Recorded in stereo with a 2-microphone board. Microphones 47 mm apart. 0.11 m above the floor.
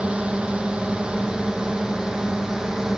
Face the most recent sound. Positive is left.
turn(degrees=-15)  # may be behind; listen again after turning